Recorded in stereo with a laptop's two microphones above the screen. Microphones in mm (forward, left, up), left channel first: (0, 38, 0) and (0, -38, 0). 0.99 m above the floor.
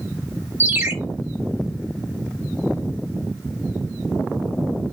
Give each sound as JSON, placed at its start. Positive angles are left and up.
{"t": 0.6, "sound": "a ringtone", "side_deg": -30, "distance_m": 1.0}